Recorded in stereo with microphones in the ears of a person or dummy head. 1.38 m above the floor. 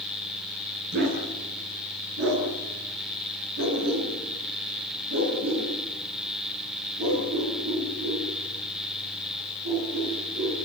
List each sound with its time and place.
0.9 s a dog barking: 60° right (ahead or behind), 6.5 m; by 10.5 s 75° right (ahead or behind), 11 m